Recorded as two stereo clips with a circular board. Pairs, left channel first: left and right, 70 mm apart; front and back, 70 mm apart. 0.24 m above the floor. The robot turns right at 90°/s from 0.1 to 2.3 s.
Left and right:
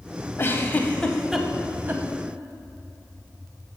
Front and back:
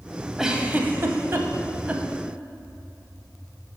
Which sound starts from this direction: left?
A giggle, at 0.4 s.